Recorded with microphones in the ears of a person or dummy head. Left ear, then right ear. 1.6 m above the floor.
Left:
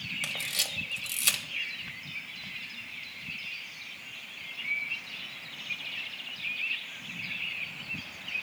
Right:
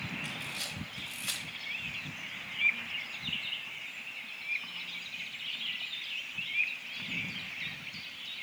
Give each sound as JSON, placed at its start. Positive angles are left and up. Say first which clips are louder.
{"t": 0.2, "sound": "a camera shutter", "louder": "left 6 dB", "side_deg": 75, "distance_m": 1.1}